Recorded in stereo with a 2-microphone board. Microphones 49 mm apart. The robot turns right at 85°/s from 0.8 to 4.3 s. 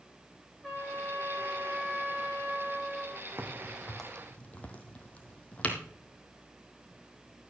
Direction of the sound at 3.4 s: 50° right (ahead or behind).